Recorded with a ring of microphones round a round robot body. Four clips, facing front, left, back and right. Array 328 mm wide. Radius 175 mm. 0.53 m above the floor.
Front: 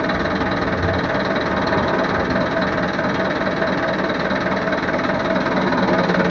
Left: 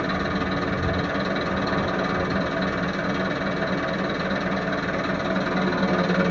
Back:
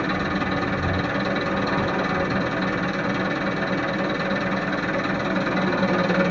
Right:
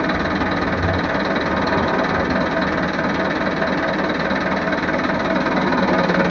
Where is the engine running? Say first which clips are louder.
Right 6 dB, front 5 dB; 45° right, 0.7 m.